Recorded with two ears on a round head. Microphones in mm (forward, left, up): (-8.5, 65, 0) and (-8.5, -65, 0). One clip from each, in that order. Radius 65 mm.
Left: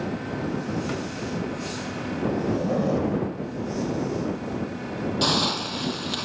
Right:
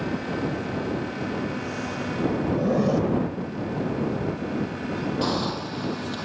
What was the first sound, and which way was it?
A zipper, 15° right (ahead or behind).